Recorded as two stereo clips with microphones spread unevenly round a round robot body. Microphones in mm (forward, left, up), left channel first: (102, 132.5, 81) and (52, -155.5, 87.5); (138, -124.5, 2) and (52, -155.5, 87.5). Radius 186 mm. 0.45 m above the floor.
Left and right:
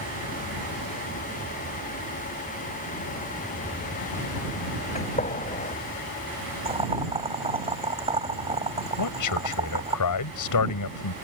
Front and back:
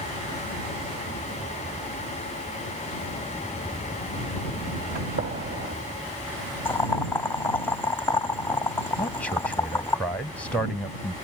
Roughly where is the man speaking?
Left.